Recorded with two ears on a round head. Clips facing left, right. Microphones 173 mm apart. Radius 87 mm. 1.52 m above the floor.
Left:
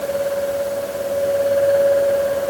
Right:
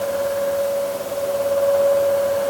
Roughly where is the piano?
No piano in this recording.